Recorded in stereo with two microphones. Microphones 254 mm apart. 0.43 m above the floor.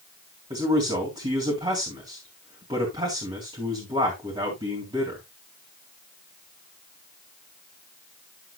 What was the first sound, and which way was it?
A man speaking, 20° right (ahead or behind).